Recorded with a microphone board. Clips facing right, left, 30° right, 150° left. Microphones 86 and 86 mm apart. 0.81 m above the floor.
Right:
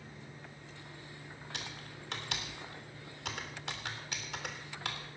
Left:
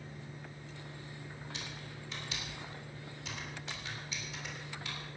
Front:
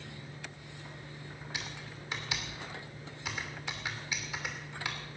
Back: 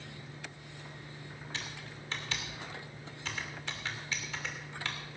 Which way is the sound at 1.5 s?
110° right.